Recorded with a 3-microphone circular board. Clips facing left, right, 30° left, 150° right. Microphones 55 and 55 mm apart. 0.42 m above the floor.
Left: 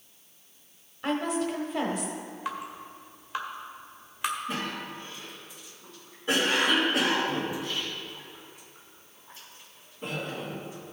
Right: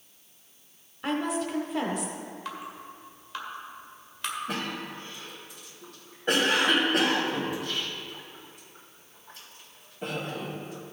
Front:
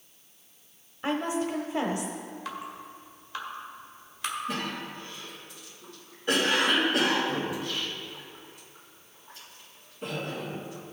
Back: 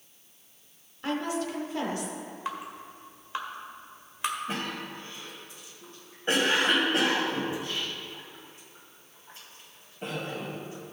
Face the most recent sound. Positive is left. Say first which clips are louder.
# even, front 1 dB
turn(degrees=-95)